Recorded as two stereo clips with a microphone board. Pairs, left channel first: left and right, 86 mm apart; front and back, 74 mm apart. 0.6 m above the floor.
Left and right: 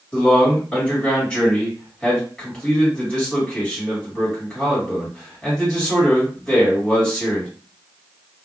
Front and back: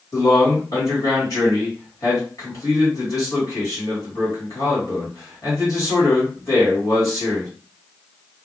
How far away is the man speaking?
About 1.8 m.